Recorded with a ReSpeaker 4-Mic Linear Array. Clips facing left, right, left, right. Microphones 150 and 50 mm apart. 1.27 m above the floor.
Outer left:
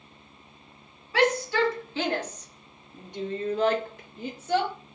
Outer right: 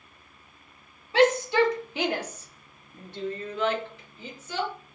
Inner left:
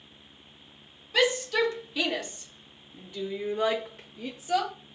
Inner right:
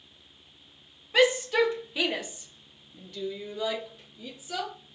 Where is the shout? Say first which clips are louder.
Outer right 3 dB, inner right 3 dB; 25° right (ahead or behind), 1.5 m; by 4.7 s 60° left (ahead or behind), 0.9 m.